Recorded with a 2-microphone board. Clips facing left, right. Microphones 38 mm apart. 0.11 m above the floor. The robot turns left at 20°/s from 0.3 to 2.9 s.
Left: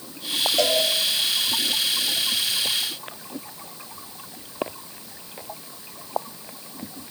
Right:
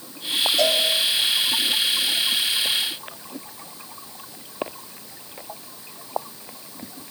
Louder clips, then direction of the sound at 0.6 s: Even; 45° left (ahead or behind).